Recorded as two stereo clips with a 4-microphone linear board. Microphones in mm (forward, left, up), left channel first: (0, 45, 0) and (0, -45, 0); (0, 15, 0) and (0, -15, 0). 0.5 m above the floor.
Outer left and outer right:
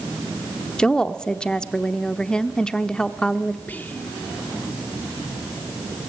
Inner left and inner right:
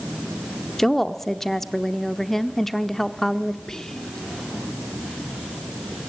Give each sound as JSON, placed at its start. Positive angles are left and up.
{"t": 0.8, "sound": "a woman speaking", "side_deg": 10, "distance_m": 0.8}
{"t": 3.7, "sound": "whispering", "side_deg": 20, "distance_m": 0.9}